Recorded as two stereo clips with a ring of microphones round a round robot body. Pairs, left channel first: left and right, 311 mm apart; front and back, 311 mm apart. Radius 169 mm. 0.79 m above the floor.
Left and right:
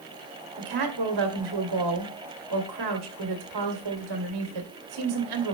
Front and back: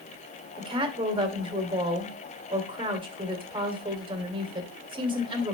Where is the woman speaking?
105° right, 2.5 m.